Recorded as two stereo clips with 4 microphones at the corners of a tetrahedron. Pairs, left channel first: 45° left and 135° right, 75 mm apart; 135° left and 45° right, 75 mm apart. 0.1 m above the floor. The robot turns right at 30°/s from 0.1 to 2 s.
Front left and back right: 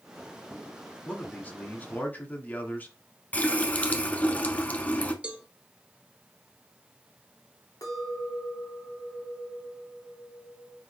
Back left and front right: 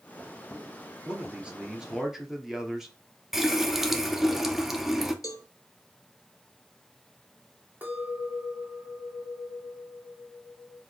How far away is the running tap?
About 0.8 m.